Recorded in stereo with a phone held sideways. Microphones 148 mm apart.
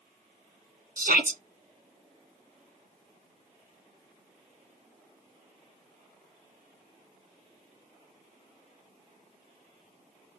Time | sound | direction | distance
1.0 | a shout | 65° right (ahead or behind) | 2 m